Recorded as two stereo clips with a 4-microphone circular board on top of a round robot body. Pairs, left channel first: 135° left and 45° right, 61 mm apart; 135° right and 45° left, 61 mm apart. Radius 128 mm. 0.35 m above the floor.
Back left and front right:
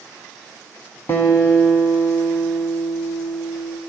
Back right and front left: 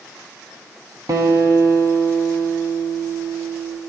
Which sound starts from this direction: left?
A guitar, at 1.1 s.